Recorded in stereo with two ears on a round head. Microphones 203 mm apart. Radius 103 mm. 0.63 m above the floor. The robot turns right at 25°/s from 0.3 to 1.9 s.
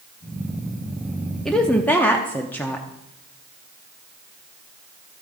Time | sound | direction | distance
1.4 | a woman speaking | centre (ahead or behind) | 0.8 m